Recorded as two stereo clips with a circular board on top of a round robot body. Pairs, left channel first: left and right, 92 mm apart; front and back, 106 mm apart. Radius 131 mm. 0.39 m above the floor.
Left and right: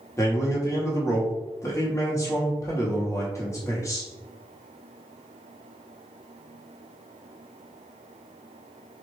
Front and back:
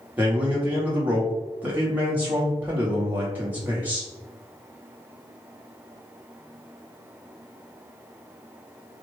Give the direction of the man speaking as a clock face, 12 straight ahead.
8 o'clock.